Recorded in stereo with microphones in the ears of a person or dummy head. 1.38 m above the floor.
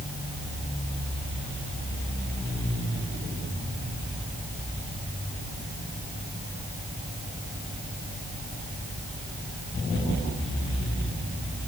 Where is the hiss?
No hiss in this recording.